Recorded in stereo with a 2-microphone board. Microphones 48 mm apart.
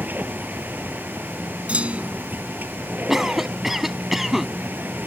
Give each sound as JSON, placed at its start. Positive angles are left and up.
{"t": 0.0, "sound": "a vehicle", "side_deg": -40}
{"t": 1.7, "sound": "a clunk", "side_deg": -30}
{"t": 3.1, "sound": "a cough", "side_deg": -10}